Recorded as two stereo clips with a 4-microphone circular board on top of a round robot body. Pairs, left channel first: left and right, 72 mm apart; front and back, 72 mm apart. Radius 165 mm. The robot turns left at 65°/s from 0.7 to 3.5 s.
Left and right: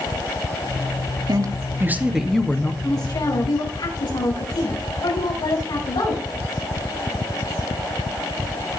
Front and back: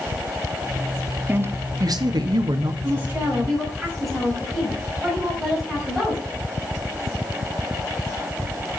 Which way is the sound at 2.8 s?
135° left.